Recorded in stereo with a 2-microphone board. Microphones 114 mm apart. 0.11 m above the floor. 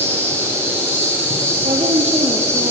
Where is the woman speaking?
65° right (ahead or behind), 3 m.